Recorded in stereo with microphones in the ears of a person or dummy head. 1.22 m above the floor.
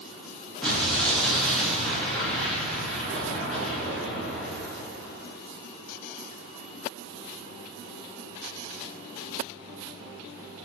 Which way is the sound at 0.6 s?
Centre (ahead or behind).